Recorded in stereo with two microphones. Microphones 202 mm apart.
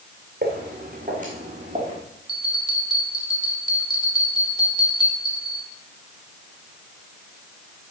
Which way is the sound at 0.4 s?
50° right (ahead or behind).